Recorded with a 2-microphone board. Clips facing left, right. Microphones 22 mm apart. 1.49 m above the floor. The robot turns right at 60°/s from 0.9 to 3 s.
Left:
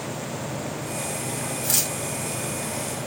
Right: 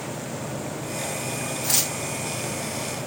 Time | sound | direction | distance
1.6 | tearing paper | 30° right (ahead or behind) | 1.4 m